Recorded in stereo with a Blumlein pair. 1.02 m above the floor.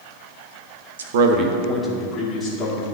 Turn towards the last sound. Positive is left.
turn(degrees=25)